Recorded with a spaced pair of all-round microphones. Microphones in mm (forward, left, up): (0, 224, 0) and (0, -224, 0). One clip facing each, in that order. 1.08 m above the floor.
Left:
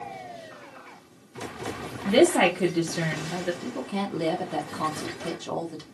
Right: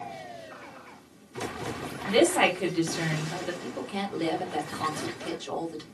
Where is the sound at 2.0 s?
65° left (ahead or behind), 0.9 m.